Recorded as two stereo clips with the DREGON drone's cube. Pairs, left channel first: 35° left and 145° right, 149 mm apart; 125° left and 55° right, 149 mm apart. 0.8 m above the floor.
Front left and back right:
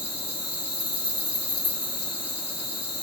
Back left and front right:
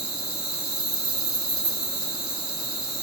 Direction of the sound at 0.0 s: 140° right.